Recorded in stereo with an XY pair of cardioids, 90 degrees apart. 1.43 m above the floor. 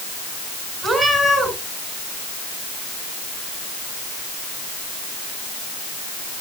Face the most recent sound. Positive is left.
turn(degrees=-40)